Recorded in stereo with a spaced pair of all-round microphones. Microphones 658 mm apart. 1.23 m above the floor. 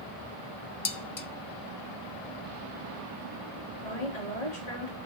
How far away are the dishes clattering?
About 0.5 m.